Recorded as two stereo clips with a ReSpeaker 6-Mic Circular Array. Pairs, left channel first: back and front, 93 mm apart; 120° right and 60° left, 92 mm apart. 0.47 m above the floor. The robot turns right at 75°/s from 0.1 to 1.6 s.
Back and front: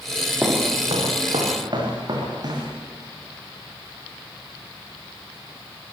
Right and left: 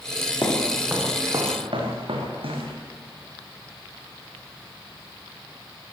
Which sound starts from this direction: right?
Footsteps, at 0.4 s.